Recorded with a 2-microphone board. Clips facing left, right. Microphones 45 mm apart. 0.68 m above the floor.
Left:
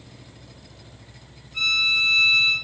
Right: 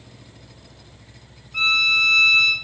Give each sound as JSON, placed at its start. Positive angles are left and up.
{"t": 1.5, "sound": "a violin", "side_deg": -50, "distance_m": 1.3}